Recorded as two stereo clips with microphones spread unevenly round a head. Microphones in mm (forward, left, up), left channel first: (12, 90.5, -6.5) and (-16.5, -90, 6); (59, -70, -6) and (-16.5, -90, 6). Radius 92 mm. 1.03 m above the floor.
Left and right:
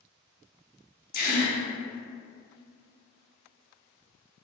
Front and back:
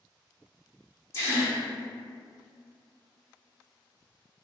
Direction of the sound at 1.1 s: 65° left.